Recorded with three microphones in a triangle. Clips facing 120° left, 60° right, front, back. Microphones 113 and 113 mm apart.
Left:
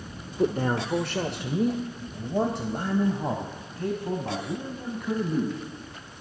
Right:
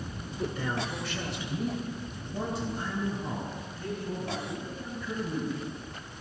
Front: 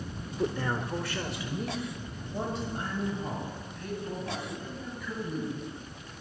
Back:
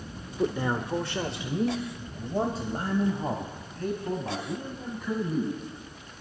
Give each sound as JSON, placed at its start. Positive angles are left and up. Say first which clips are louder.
{"t": 0.4, "sound": "a man speaking", "louder": "left 8 dB, back 3 dB", "azimuth_deg": 105, "distance_m": 1.1}